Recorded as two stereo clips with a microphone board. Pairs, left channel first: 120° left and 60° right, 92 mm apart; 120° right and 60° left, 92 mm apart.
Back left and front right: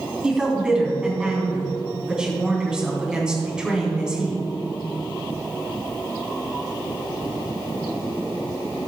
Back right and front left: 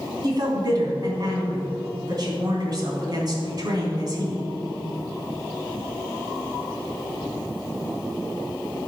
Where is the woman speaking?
20° left, 3 m.